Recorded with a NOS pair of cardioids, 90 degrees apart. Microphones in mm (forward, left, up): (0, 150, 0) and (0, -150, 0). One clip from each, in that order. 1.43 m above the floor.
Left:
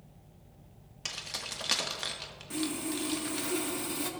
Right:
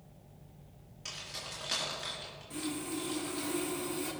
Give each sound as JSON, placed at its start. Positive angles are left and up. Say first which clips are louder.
{"t": 1.1, "sound": "keys jangling", "louder": "left 4 dB", "azimuth_deg": 60, "distance_m": 1.8}
{"t": 2.5, "sound": "sawing", "louder": "left 4 dB", "azimuth_deg": 60, "distance_m": 1.9}